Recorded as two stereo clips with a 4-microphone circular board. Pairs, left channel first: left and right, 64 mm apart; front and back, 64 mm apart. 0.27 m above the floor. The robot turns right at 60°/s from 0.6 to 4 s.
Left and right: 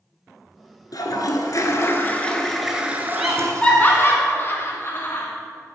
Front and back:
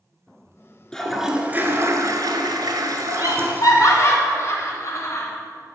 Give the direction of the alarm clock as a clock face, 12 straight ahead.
No alarm clock in this recording.